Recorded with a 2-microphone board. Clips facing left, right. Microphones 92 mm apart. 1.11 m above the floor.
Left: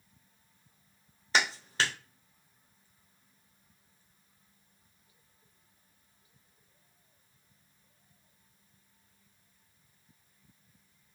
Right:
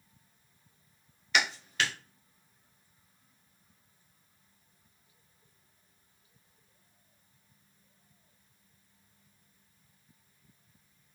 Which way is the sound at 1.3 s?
35° left (ahead or behind).